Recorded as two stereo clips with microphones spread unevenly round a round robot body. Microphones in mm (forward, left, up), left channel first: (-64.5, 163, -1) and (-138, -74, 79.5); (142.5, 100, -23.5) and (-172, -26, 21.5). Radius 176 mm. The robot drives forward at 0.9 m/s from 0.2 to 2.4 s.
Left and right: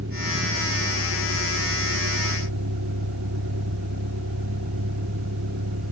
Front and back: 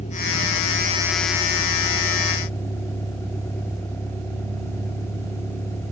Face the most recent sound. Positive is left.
turn(degrees=-60)